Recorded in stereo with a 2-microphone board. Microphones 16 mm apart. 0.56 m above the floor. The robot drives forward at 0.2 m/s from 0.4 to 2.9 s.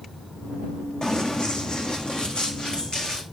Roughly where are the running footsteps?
Left.